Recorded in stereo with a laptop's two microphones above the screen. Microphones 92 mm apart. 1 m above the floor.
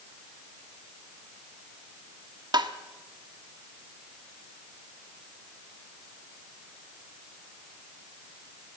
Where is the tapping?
50° right (ahead or behind), 1.4 m.